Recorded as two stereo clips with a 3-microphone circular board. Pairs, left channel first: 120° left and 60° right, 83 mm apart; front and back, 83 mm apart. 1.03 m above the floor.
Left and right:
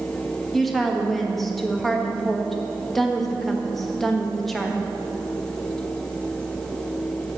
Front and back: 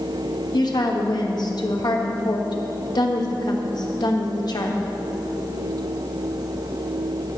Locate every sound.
0.5 s a woman speaking: 30° left, 1.2 m